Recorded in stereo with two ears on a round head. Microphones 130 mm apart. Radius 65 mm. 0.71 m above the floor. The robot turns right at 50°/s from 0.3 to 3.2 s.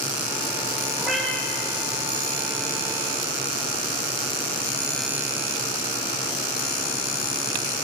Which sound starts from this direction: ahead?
A cat meowing, at 1.0 s.